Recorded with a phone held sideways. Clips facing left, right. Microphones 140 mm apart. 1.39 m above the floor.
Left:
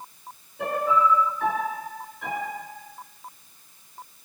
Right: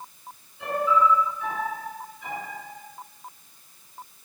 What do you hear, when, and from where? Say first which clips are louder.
0.6 s a piano: even; 65° left (ahead or behind), 6.5 m